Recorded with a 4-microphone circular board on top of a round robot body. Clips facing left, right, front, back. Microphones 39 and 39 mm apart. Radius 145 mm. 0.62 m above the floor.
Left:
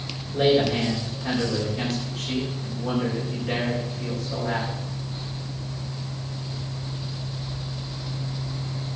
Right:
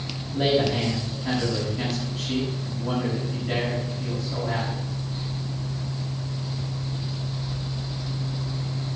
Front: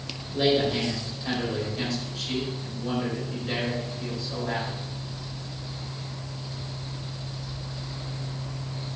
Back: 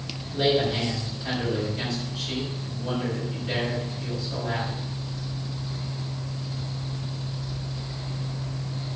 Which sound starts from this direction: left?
A man speaking, at 0.3 s.